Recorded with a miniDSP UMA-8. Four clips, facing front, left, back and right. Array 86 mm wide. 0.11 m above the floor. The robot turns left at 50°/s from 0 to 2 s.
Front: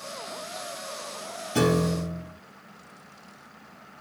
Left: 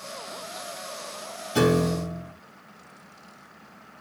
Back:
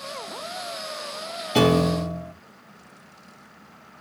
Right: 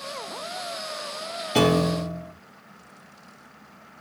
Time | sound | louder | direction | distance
1.6 | a piano | right 1 dB, back 4 dB | 135° right | 2.5 m